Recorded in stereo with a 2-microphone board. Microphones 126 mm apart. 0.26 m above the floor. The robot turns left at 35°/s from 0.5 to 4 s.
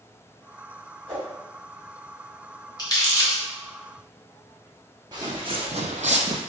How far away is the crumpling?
About 1.8 m.